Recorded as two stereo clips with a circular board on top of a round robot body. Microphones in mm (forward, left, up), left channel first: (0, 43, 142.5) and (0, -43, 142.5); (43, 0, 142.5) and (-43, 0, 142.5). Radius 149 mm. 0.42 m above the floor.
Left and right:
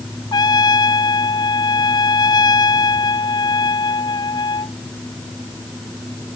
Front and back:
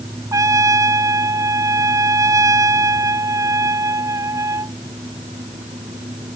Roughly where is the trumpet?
Behind left.